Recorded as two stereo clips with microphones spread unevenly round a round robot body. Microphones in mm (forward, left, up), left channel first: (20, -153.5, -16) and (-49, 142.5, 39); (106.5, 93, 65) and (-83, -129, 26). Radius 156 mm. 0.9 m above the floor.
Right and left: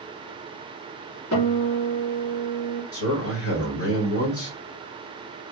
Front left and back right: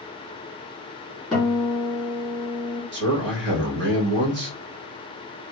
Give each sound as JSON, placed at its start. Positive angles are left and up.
{"t": 1.3, "sound": "a guitar", "azimuth_deg": -40, "distance_m": 2.5}
{"t": 2.9, "sound": "a man speaking", "azimuth_deg": -95, "distance_m": 1.4}